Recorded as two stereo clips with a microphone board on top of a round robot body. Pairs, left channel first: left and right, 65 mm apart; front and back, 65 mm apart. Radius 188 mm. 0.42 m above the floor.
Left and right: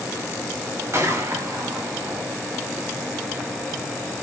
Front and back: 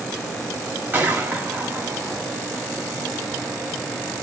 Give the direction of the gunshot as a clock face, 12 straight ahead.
4 o'clock.